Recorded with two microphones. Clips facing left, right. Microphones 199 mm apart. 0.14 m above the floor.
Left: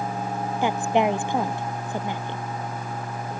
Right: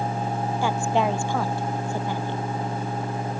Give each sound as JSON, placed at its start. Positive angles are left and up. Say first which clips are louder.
{"t": 0.6, "sound": "a woman speaking", "louder": "left 2 dB", "side_deg": 20}